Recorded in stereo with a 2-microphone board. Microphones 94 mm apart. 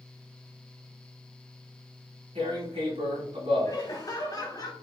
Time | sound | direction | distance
2.4 | tearing paper | 85° right | 2 m
3.6 | laughter | 40° left (ahead or behind) | 1.0 m